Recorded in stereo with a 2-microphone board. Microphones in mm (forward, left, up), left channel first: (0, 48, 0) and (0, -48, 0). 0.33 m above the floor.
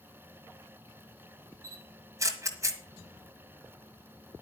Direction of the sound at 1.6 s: 30° right (ahead or behind).